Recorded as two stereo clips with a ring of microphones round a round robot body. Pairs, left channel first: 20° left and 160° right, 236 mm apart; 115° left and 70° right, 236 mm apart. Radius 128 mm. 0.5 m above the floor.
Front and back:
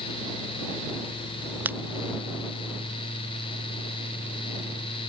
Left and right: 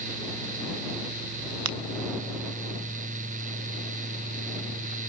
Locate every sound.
1.6 s a finger snap: 75° right